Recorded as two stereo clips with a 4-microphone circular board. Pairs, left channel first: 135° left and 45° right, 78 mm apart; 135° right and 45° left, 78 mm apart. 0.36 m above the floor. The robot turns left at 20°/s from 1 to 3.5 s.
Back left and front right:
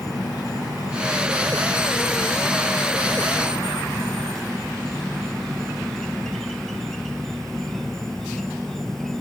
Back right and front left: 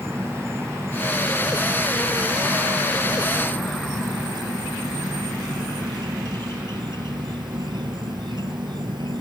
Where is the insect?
100° left; by 9.2 s 50° left.